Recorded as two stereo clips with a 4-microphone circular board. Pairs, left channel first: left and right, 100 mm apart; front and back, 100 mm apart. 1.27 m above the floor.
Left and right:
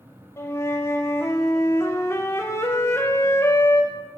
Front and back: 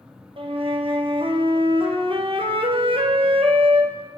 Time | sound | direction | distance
0.4 | a flute | 155° left | 1.0 m